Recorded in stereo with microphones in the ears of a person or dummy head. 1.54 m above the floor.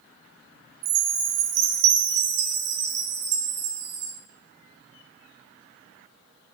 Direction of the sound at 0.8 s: 60° right (ahead or behind).